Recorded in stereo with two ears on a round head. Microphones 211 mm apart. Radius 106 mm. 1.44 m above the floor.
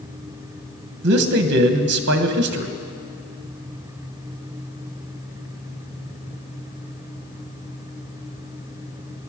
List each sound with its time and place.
1.0 s a man speaking: 50° right (ahead or behind), 1.2 m